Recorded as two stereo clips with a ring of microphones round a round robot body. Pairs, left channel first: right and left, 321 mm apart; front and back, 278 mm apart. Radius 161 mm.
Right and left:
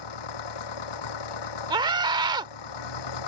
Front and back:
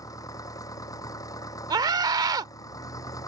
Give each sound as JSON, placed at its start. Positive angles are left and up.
{"t": 0.0, "sound": "an engine running", "azimuth_deg": -80}
{"t": 1.7, "sound": "a scream", "azimuth_deg": 135}